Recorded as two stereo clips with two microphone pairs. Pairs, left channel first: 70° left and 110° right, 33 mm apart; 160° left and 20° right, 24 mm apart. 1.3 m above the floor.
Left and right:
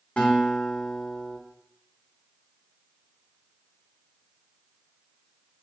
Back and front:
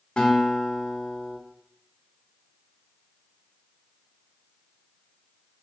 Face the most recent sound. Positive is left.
turn(degrees=120)